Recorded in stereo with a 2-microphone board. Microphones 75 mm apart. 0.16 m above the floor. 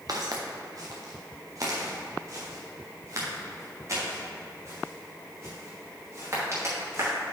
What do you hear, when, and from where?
0.1 s footsteps: 55° right (ahead or behind), 1.6 m; by 7.1 s 40° right (ahead or behind), 5 m